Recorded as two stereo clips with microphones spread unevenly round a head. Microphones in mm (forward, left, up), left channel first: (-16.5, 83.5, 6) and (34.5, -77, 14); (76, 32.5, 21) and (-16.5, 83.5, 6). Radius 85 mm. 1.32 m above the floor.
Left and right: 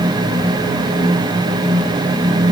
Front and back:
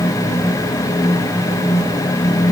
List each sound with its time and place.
Only background noise.